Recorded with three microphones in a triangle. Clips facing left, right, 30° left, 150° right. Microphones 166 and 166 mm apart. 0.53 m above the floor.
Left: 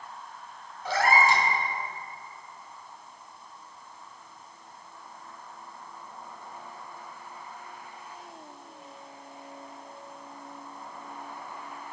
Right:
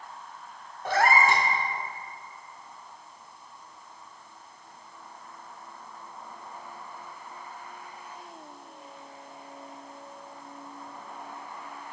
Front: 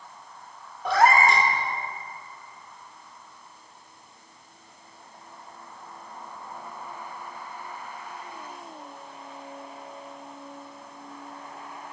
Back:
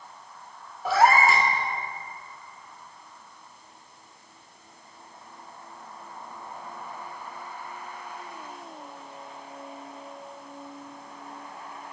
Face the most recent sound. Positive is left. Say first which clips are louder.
# right 1 dB, even
turn(degrees=-65)